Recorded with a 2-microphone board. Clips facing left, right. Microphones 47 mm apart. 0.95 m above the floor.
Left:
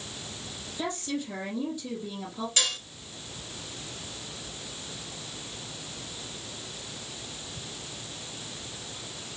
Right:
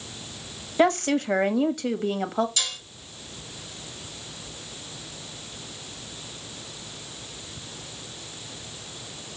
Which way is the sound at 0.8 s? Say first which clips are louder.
Right 12 dB; 60° right (ahead or behind).